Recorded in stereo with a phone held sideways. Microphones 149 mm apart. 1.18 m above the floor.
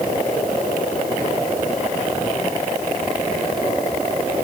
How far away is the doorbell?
No doorbell in this recording.